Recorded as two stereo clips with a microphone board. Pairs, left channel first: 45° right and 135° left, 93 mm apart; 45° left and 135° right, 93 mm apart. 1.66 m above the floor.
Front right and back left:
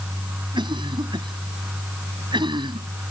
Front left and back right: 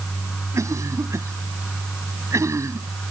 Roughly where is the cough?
Behind.